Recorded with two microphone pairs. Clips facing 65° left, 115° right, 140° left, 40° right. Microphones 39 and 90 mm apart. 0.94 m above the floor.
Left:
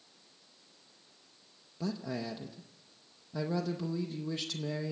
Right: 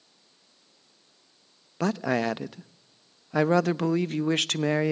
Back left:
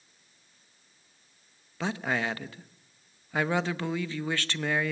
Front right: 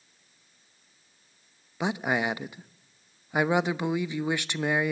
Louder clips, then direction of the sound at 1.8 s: Right 11 dB, front right 3 dB; 110° right.